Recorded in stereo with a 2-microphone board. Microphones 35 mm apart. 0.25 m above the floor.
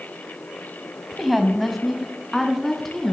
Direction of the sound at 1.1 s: 5° right (ahead or behind).